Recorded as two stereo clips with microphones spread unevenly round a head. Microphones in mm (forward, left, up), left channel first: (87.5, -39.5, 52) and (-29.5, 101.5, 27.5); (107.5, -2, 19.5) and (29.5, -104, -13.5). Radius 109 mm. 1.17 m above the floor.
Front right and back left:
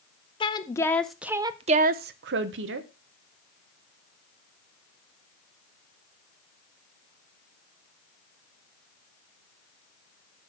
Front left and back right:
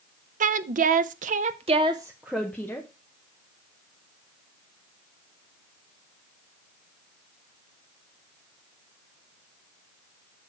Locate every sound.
0.4 s a woman speaking: 120° right, 0.8 m; by 2.9 s 135° left, 0.8 m